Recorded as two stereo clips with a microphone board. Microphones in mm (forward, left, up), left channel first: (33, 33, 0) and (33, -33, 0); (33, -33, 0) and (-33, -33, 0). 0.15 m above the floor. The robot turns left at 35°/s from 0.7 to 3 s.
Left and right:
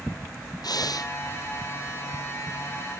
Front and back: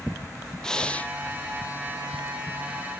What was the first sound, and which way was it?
Breathing, 80° left.